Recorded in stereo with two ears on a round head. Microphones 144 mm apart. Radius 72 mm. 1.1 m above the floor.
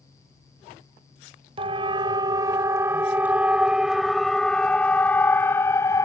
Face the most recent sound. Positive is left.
turn(degrees=20)  # may be behind; listen again after turning